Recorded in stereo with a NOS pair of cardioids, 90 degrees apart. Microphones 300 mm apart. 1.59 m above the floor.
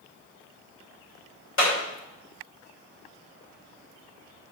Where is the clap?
40° left, 6 m.